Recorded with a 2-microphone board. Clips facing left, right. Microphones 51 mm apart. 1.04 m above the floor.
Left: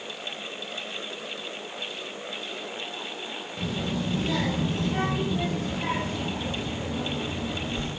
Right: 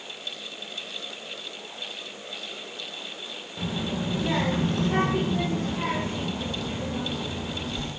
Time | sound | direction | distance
3.6 | a child speaking | 5° right (ahead or behind) | 0.8 m